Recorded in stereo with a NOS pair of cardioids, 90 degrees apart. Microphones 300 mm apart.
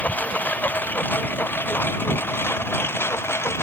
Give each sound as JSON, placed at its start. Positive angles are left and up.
{"t": 0.0, "sound": "a lawn mower", "azimuth_deg": 5}